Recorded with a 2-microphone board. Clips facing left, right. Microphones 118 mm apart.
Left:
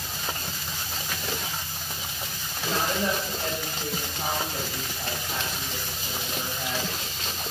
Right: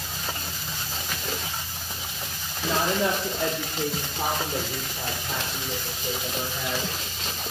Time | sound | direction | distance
2.6 | a woman speaking | 85° right | 2.5 m